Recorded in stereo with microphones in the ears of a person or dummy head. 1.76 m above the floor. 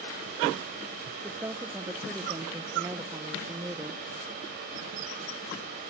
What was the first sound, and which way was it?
A woman speaking, 20° right (ahead or behind).